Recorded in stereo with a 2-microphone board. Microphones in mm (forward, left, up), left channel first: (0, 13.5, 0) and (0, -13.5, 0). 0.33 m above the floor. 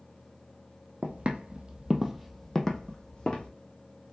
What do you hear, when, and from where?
1.0 s footsteps: 65° right (ahead or behind), 0.9 m; by 3.5 s 35° left (ahead or behind), 1.3 m